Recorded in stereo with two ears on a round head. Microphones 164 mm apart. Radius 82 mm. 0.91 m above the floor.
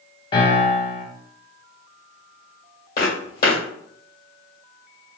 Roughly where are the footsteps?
Left.